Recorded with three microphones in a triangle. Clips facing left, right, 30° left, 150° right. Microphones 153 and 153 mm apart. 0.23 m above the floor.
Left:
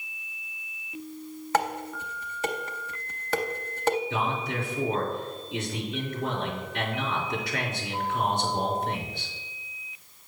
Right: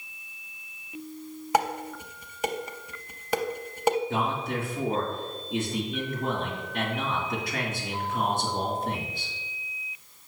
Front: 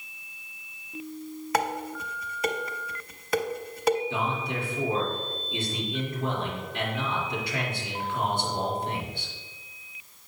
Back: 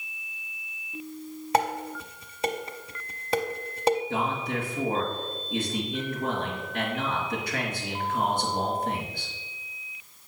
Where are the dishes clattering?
150° right, 0.7 m.